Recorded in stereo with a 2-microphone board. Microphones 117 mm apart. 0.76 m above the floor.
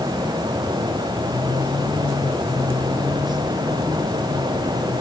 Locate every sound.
Only background noise.